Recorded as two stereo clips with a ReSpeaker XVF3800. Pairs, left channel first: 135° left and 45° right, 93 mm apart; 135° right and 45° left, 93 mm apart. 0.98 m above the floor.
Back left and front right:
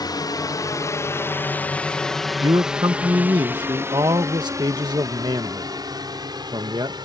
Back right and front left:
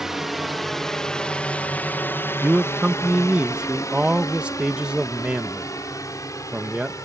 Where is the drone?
130° left; by 7.0 s 80° right.